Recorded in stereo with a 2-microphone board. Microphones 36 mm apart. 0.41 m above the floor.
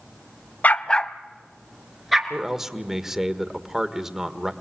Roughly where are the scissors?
No scissors in this recording.